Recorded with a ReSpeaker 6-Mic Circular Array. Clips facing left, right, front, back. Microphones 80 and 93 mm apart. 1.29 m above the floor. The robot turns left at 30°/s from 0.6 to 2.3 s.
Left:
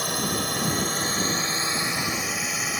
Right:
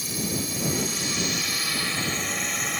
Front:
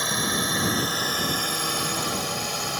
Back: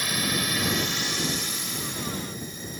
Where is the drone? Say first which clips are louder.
Left 3 dB, front 2 dB; 60° left; by 2.8 s 5° left.